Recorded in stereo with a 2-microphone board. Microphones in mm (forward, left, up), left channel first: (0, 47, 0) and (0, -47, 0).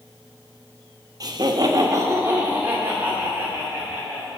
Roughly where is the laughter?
Right.